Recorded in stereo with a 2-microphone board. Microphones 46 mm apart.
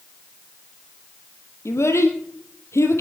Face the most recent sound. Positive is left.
turn(degrees=80)